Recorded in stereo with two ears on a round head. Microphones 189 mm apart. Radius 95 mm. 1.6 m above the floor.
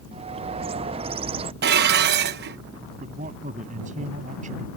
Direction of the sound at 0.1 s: 25° right (ahead or behind).